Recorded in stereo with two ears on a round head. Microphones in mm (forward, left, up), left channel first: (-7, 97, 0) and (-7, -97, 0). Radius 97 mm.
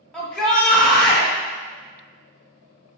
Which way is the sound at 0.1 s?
5° left (ahead or behind).